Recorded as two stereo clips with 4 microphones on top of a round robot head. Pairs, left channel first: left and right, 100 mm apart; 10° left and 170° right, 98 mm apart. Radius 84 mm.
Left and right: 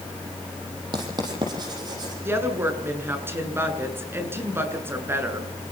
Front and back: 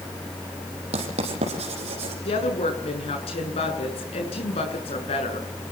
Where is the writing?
145° right, 7 m.